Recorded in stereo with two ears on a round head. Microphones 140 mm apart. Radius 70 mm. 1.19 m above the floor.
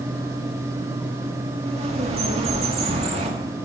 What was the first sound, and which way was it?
A bird, 40° right (ahead or behind).